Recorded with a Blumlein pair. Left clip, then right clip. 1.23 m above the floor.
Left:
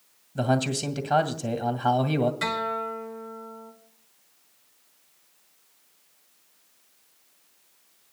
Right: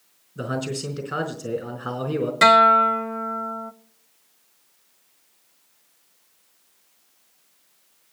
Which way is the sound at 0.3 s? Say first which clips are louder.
Left 3 dB; 45° left.